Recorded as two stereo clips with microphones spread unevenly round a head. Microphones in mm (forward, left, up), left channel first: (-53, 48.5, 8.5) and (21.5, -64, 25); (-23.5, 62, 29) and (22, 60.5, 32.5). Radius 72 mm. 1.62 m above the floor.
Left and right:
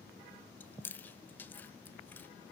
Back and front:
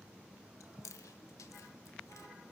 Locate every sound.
0.6 s chewing: 160° right, 1.2 m